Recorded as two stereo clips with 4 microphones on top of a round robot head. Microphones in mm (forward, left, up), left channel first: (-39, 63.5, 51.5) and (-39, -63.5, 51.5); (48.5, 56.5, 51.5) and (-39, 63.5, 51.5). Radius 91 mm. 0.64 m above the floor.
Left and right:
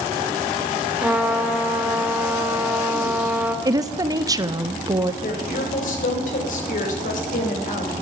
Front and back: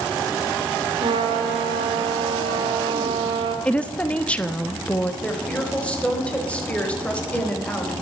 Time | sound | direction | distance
1.0 | a trumpet | 170° right | 2 m
3.6 | a woman speaking | 70° right | 0.9 m
5.2 | a woman speaking | 70° left | 4 m